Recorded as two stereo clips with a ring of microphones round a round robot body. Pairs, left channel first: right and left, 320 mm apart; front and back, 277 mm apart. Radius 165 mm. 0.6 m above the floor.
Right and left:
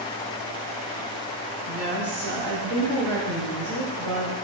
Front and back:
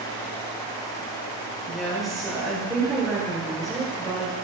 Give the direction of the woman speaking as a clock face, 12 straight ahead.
9 o'clock.